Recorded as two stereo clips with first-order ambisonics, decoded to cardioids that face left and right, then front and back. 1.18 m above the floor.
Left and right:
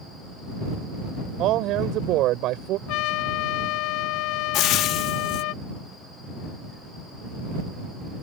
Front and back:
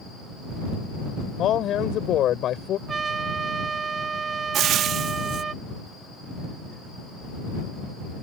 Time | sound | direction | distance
1.4 | a man speaking | 50° right | ?
2.9 | a trumpet | 110° left | ?
4.5 | frying | 130° left | ?